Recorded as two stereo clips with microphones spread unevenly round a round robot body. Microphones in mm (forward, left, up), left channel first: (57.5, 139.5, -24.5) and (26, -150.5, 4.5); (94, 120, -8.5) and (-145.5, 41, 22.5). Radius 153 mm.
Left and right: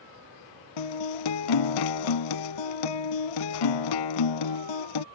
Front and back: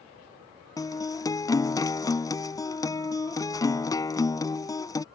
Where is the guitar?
100° left.